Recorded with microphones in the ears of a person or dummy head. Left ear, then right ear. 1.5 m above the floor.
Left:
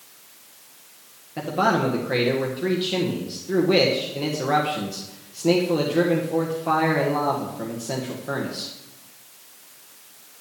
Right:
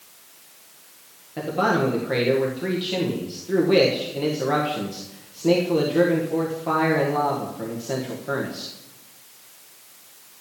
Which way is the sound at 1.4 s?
5° right (ahead or behind).